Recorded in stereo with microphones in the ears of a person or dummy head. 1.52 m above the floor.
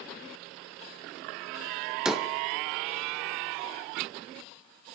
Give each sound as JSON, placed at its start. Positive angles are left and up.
{"t": 2.0, "sound": "a door slam", "side_deg": 0, "distance_m": 0.8}